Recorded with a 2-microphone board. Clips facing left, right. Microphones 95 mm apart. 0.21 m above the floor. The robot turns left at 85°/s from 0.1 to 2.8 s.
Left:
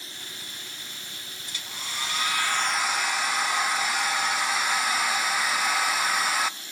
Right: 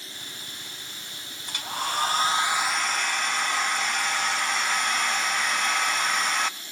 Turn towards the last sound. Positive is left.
turn(degrees=175)